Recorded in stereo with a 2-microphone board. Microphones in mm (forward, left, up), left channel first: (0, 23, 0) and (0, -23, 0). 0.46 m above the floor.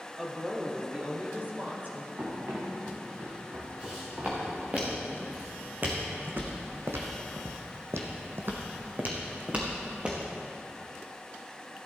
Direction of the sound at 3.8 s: 25° right (ahead or behind).